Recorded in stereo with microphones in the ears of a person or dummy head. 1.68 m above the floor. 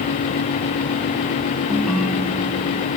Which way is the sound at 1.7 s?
5° left (ahead or behind).